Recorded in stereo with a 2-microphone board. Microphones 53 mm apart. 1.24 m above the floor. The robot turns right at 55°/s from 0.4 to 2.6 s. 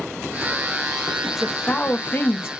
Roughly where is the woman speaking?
Ahead.